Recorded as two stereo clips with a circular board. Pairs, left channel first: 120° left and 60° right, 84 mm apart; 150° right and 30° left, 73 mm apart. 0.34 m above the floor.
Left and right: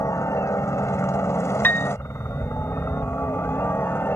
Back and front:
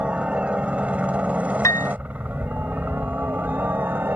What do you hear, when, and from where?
0.0 s a helicopter: 95° left; by 4.2 s 70° left
1.6 s a piano: straight behind